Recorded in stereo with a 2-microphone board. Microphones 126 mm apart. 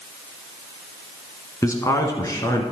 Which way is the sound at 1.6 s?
25° left (ahead or behind).